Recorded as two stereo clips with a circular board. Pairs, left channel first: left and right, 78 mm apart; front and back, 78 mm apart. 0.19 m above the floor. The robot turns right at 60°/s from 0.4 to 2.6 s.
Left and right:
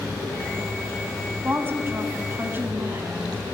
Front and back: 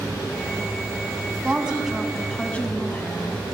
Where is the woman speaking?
125° right, 1.1 m; by 3.4 s 55° right, 1.1 m.